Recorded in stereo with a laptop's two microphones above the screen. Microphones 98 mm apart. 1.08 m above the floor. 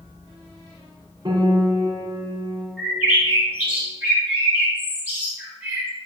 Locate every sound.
1.2 s a piano: 40° right (ahead or behind), 1.8 m
2.8 s a bird: 15° right (ahead or behind), 2 m